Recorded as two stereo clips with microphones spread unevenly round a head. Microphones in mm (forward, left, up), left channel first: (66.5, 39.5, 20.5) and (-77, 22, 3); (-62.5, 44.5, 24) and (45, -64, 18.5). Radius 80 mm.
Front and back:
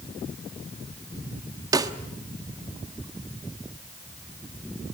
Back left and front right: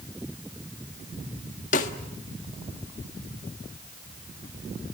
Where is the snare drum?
125° left, 1.3 m.